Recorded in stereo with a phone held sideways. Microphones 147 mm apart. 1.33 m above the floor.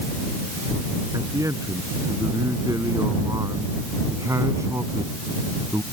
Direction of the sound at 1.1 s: 25° right (ahead or behind).